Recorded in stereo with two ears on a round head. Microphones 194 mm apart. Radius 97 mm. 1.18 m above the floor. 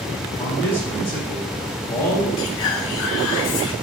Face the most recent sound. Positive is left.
turn(degrees=60)  # may be behind; listen again after turning